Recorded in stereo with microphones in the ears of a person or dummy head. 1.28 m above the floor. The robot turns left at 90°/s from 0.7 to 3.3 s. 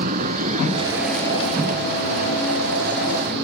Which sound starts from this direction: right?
A vehicle, at 0.0 s.